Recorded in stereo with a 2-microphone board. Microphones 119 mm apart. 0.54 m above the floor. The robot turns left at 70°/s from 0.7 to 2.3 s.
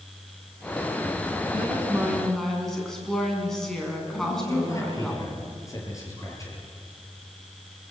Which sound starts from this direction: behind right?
A woman speaking, at 1.5 s.